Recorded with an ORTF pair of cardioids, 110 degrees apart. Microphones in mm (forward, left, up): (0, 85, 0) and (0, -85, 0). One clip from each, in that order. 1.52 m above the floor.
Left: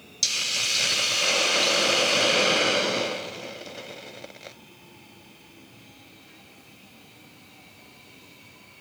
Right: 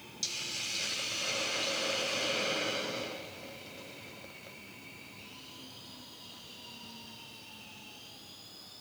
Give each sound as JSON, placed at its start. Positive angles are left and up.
{"t": 0.2, "sound": "a hiss", "azimuth_deg": 55, "distance_m": 0.5}